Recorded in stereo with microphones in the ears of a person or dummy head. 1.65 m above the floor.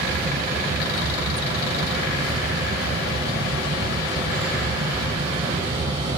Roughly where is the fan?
Right.